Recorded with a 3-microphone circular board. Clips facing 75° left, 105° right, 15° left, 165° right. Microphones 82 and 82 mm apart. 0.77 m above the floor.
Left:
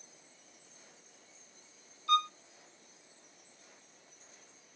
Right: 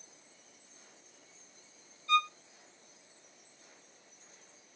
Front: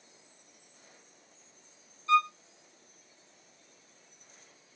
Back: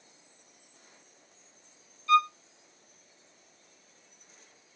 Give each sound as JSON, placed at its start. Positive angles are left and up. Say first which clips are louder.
{"t": 2.1, "sound": "a violin", "louder": "even, back 2 dB", "azimuth_deg": 80, "distance_m": 0.7}